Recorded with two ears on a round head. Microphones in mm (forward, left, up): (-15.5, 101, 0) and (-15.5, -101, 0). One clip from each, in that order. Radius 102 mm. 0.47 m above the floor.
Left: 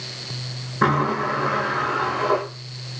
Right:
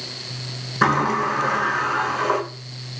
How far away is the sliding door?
About 7.5 m.